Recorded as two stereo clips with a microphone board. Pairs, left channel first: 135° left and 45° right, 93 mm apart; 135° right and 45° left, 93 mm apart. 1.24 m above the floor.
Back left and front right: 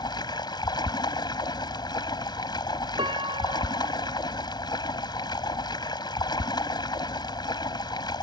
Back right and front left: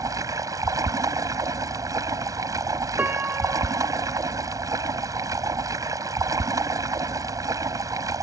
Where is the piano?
25° right.